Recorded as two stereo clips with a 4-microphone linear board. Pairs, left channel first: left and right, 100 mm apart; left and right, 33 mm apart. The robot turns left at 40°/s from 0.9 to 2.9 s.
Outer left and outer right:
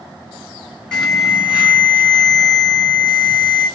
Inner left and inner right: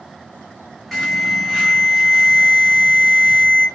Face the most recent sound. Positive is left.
turn(degrees=-70)